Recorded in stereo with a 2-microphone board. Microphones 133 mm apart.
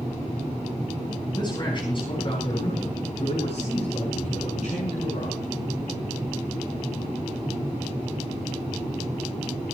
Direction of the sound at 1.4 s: 35° left (ahead or behind).